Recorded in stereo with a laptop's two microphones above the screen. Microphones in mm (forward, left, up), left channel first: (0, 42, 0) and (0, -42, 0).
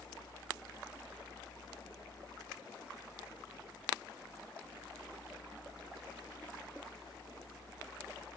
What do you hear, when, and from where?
0.0 s a fan: 75° left (ahead or behind), 0.9 m